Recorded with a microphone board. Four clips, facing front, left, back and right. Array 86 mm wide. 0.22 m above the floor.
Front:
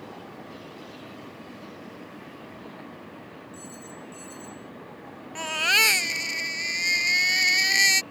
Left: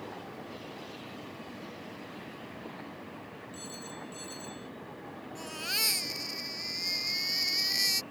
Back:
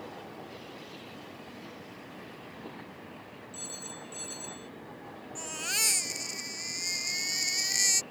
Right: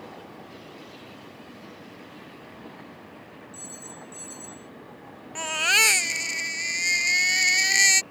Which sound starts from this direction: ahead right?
A baby crying, at 5.3 s.